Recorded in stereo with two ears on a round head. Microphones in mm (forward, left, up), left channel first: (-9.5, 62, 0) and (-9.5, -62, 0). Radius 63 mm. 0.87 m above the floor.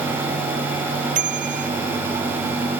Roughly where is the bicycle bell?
Right.